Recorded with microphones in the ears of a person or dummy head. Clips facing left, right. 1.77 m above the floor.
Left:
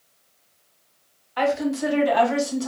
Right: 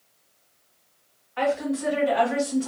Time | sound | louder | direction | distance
1.4 | a woman speaking | left 2 dB | 60° left (ahead or behind) | 1.0 m